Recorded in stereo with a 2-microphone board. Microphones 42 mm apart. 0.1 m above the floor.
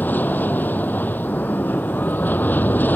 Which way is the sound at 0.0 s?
45° left (ahead or behind).